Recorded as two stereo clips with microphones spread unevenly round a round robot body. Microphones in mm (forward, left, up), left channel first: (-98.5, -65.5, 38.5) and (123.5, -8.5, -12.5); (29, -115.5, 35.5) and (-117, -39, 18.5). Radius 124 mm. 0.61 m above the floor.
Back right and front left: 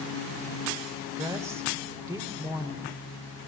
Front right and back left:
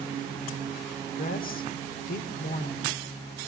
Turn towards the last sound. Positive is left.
turn(degrees=-60)